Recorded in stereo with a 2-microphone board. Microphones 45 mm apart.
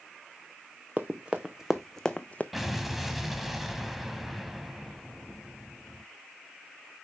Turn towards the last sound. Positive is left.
turn(degrees=-5)  # may be behind; listen again after turning